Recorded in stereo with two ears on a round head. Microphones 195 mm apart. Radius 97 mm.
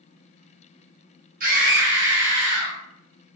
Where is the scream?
40° right (ahead or behind), 0.7 m; by 2.8 s 60° right (ahead or behind), 1.4 m.